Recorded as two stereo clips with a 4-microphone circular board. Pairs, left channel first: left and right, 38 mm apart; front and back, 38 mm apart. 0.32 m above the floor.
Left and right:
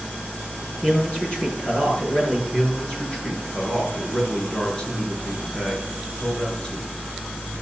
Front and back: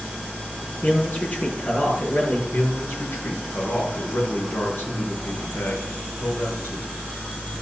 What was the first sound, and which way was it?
A man speaking, 30° left.